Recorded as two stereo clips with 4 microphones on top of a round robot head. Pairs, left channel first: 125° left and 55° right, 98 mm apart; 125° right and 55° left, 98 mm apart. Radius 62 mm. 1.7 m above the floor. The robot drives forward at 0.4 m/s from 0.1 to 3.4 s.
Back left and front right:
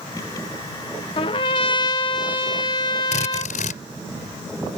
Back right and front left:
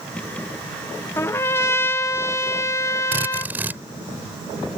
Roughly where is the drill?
Behind left.